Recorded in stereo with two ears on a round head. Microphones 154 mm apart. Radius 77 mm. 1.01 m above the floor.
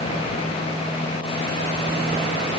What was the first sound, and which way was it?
Only background noise.